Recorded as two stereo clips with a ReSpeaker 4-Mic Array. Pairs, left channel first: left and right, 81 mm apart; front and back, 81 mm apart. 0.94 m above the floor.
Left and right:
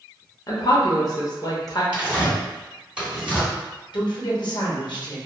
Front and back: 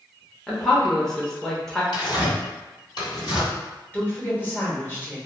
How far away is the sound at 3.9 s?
About 0.9 m.